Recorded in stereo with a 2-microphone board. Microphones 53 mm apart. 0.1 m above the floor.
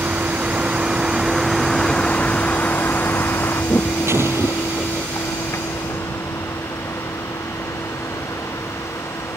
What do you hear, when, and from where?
0.0 s a vehicle: 35° right (ahead or behind); by 9.4 s 85° left
4.1 s an explosion: 60° right (ahead or behind)